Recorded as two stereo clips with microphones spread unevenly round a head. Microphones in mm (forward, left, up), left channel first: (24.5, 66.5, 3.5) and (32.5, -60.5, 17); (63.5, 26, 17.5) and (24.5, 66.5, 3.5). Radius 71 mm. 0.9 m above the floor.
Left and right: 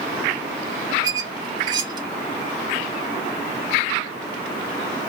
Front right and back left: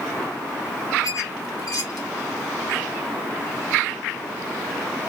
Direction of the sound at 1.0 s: 25° right.